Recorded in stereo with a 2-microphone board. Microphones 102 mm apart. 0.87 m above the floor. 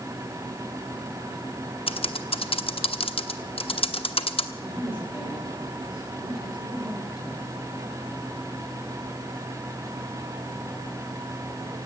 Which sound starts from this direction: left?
Typing on a keyboard, at 1.9 s.